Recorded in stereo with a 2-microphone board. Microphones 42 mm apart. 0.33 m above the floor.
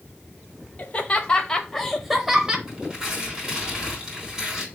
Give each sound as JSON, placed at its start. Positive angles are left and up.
{"t": 0.8, "sound": "laughter", "side_deg": 35, "distance_m": 1.3}
{"t": 2.7, "sound": "tearing paper", "side_deg": -15, "distance_m": 3.5}